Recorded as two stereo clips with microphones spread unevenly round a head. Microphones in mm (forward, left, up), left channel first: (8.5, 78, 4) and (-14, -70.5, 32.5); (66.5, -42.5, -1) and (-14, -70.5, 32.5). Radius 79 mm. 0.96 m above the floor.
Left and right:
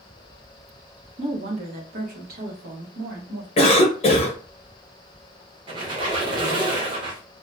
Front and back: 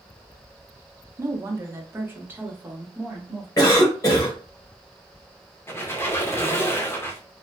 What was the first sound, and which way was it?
A woman speaking, 90° right.